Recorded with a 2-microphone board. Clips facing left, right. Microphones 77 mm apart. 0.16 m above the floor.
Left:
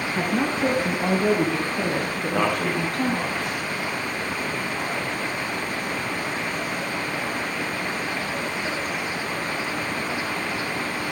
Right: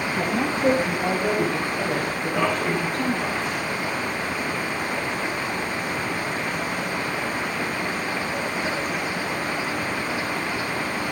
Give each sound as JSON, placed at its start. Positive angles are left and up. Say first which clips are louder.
{"t": 0.1, "sound": "a woman speaking", "louder": "left 2 dB", "side_deg": 55, "distance_m": 2.5}
{"t": 2.2, "sound": "a man speaking", "louder": "even", "side_deg": 75, "distance_m": 6.0}